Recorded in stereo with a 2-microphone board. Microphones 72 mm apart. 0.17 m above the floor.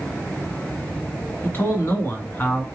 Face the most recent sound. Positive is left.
turn(degrees=30)  # may be behind; listen again after turning